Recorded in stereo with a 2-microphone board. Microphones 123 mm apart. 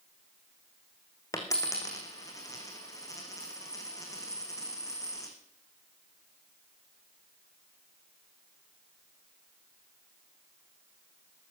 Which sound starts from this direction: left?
A dropped coin, at 1.3 s.